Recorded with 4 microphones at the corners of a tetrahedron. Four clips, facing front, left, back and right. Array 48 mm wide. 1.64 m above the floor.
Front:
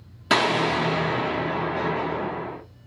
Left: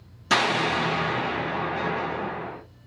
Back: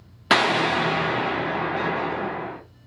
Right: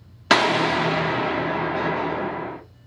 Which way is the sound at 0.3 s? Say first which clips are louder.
Right 4 dB, back 2 dB; 120° right.